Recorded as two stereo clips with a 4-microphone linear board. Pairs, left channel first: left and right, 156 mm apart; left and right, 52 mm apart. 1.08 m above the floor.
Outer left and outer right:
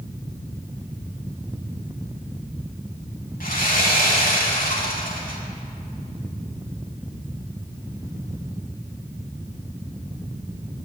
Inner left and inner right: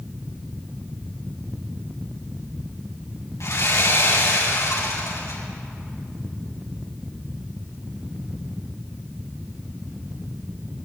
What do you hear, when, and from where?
3.4 s sawing: 70° left (ahead or behind), 6.5 m